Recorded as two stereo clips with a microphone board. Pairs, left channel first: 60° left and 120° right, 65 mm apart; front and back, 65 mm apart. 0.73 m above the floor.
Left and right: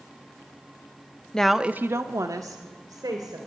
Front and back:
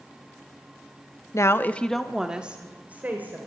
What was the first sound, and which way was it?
A woman speaking, 15° right.